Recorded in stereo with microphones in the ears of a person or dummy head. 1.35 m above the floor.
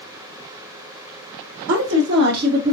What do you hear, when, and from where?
1.7 s a woman speaking: 65° right (ahead or behind), 1.2 m; by 2.7 s 35° right (ahead or behind), 0.6 m